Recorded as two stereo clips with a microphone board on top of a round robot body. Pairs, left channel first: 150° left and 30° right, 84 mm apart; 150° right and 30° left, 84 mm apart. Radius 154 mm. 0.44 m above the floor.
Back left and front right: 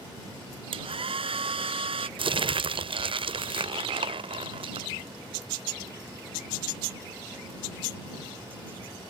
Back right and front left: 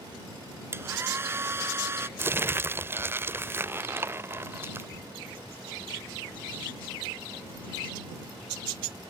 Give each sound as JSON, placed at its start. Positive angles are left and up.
{"t": 0.7, "sound": "a hair dryer", "azimuth_deg": -35}
{"t": 2.2, "sound": "crumpling", "azimuth_deg": -35}